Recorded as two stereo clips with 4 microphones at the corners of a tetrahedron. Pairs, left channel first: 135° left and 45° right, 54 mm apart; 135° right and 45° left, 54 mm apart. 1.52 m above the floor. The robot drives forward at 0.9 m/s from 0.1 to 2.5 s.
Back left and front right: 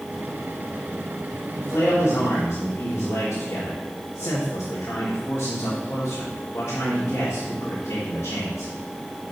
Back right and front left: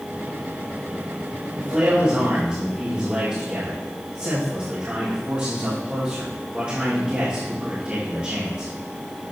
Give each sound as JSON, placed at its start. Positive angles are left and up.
{"t": 1.6, "sound": "a man speaking", "azimuth_deg": 85, "distance_m": 2.5}